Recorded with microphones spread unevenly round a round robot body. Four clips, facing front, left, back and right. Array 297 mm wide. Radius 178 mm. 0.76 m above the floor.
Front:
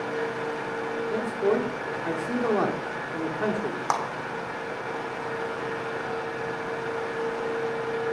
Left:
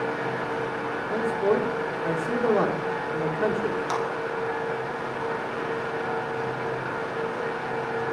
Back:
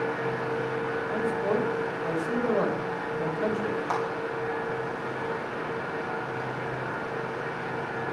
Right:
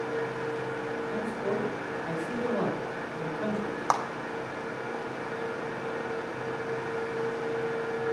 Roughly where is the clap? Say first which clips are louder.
Right 5 dB, front 4 dB; ahead right.